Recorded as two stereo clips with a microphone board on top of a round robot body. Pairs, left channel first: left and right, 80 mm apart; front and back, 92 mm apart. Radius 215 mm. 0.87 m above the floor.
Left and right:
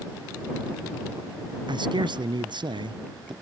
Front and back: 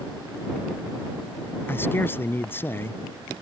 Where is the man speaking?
65° right.